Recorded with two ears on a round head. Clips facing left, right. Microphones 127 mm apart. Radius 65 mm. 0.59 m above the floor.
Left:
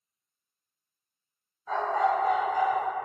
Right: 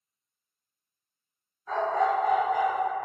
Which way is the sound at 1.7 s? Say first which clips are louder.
Even; 20° left (ahead or behind).